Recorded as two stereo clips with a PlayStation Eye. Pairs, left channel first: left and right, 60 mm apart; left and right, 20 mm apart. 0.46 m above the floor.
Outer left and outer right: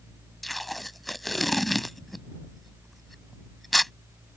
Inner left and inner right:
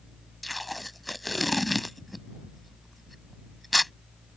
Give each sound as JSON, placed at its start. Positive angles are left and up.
{"t": 0.4, "sound": "tape being pulled", "side_deg": 0}